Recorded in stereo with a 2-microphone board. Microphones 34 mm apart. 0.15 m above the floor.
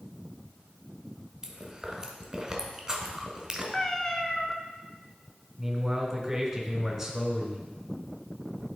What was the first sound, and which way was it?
Chewing, 15° right (ahead or behind).